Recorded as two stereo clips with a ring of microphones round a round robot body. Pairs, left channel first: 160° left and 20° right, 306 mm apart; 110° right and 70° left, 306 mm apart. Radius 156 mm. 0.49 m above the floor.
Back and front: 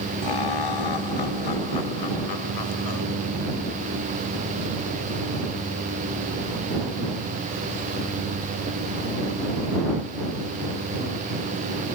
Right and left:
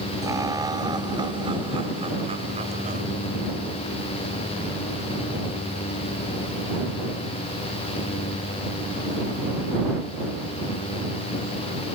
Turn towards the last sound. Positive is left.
turn(degrees=135)